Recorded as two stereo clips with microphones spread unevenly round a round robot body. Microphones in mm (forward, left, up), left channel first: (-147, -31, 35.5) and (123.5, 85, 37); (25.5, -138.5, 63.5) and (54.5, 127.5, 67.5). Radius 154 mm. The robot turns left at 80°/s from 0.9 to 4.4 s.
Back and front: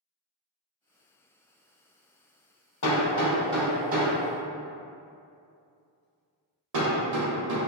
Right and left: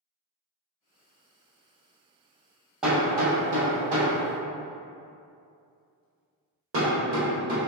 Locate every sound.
2.8 s hammering: 175° left, 1.9 m; by 7.6 s 45° left, 1.9 m